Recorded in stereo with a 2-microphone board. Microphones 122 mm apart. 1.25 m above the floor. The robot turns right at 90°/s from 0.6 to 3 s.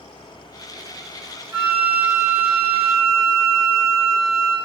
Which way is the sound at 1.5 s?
140° right.